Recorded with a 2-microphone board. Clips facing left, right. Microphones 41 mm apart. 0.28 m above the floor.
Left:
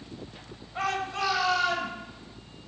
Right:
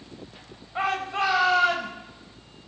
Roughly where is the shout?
Right.